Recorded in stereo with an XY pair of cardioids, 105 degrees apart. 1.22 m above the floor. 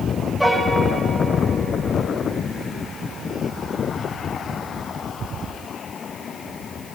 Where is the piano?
5° left, 6 m.